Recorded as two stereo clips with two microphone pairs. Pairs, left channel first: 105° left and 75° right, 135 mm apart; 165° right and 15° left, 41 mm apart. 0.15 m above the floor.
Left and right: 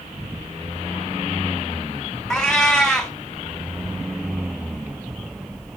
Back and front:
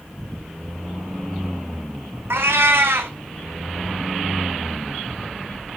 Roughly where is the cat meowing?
Ahead.